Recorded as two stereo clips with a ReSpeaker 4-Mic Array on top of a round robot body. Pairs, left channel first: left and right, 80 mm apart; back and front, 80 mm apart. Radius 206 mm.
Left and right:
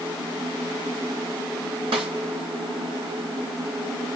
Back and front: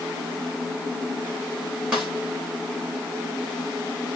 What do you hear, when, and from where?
1.9 s a snare drum: 80° right, 0.5 m